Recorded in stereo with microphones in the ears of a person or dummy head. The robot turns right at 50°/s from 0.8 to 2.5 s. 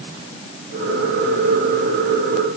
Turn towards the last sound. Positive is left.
No sound to turn to.